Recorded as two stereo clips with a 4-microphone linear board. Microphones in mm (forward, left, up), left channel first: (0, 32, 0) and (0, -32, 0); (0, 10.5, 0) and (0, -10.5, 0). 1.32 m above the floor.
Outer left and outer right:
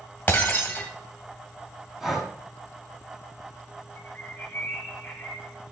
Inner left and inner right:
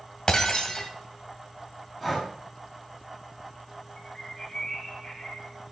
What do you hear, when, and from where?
0.3 s breaking glass: 30° left (ahead or behind), 1.7 m
2.0 s breathing: 5° right (ahead or behind), 2 m
4.0 s a bird: 25° left (ahead or behind), 2.5 m